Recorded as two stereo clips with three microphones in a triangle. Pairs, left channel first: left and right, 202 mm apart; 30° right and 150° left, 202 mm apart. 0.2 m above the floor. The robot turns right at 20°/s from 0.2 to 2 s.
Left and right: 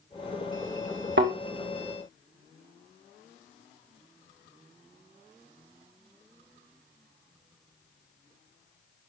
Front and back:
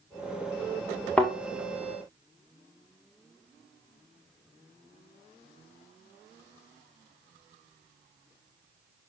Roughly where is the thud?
Behind right.